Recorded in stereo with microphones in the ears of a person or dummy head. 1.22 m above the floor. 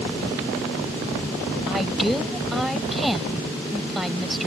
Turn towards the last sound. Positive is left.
turn(degrees=0)  # may be behind; listen again after turning